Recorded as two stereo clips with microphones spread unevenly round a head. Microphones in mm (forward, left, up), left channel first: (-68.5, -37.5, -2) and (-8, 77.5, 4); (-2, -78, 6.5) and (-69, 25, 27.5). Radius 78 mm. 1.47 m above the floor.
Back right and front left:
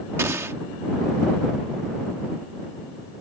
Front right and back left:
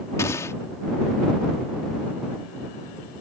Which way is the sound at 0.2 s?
15° left.